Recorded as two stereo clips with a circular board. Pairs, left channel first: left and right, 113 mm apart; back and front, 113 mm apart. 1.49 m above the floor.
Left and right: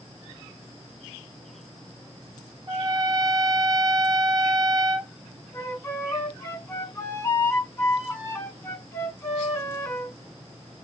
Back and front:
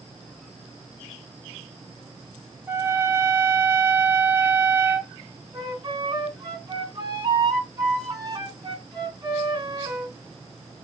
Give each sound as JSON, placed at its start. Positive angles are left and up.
{"t": 2.7, "sound": "a trumpet", "azimuth_deg": -60, "distance_m": 1.1}
{"t": 5.5, "sound": "a flute", "azimuth_deg": 30, "distance_m": 1.6}